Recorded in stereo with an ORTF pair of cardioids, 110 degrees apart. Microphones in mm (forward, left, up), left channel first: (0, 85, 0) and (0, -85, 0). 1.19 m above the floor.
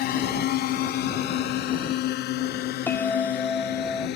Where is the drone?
65° left; by 4.2 s 75° left.